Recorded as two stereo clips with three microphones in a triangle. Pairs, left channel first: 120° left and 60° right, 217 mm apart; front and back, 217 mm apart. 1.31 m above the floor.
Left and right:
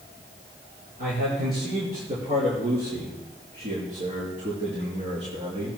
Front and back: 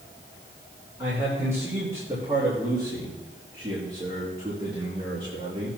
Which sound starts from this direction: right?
A man speaking, at 1.0 s.